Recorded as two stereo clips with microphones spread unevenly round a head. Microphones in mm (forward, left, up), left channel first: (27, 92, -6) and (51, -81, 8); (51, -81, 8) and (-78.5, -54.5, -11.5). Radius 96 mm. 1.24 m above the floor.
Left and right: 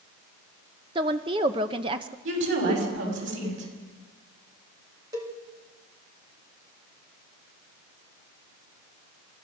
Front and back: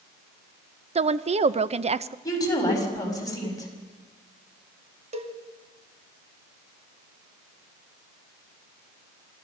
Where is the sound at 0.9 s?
150° right, 0.8 m.